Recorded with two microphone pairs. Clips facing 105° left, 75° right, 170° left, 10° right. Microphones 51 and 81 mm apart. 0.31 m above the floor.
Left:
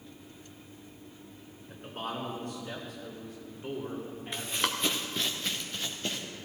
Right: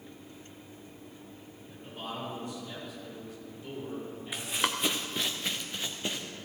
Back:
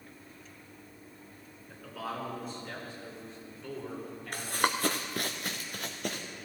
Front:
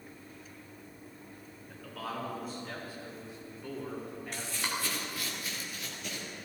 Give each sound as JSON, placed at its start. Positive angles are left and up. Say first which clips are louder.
{"t": 1.7, "sound": "a man speaking", "louder": "left 3 dB, back 1 dB", "azimuth_deg": 85, "distance_m": 4.0}
{"t": 4.3, "sound": "running footsteps", "louder": "right 1 dB, back 8 dB", "azimuth_deg": -160, "distance_m": 1.0}